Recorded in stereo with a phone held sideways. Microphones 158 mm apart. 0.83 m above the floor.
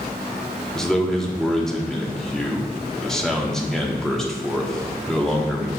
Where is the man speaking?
5° left (ahead or behind), 1.3 m.